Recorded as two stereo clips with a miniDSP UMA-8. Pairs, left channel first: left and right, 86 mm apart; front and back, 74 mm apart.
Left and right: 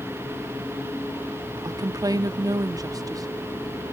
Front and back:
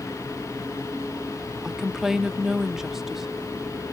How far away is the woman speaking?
About 0.7 m.